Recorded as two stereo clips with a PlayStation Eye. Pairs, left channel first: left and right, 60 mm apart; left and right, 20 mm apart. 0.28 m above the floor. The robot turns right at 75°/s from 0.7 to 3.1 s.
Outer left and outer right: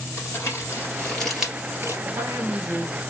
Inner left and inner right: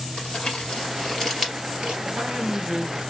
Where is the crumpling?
50° left (ahead or behind), 2.5 m; by 1.9 s 45° right (ahead or behind), 2.5 m.